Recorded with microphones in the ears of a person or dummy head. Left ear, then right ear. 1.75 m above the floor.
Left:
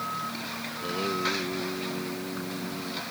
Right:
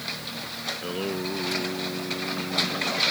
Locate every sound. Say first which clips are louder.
0.7 s singing: right 1 dB; 10° right (ahead or behind)